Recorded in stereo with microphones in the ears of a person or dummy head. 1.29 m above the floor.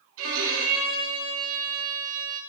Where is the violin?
80° right, 2.5 m.